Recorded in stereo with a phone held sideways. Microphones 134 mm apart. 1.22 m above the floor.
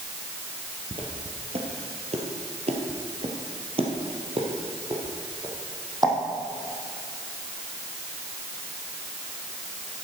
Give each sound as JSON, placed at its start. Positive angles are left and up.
{"t": 0.9, "sound": "footsteps", "side_deg": -40, "distance_m": 2.0}